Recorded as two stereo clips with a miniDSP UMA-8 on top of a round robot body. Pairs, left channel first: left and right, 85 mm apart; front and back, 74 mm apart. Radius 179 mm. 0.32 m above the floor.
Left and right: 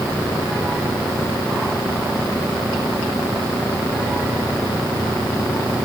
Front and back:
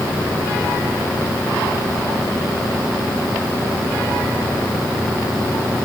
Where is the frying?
I don't hear frying.